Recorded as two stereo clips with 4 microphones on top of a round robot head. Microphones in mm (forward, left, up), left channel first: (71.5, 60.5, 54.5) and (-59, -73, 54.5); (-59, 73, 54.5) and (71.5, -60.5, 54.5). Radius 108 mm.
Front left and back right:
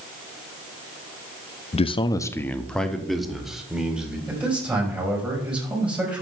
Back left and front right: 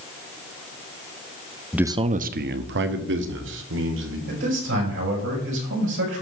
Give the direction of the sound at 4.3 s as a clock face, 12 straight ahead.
2 o'clock.